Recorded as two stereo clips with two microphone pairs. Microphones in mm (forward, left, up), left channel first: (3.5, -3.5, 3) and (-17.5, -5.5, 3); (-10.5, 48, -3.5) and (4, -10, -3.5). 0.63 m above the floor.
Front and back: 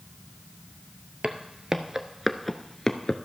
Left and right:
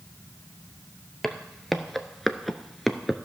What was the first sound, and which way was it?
Footsteps, 170° right.